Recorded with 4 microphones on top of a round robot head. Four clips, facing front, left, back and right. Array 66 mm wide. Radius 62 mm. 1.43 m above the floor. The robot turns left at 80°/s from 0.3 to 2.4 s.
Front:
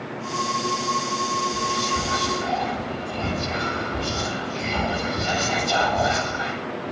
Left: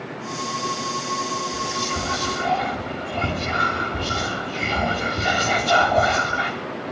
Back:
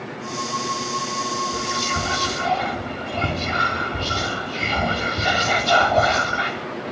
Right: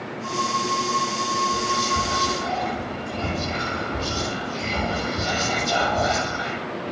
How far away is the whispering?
About 3.5 m.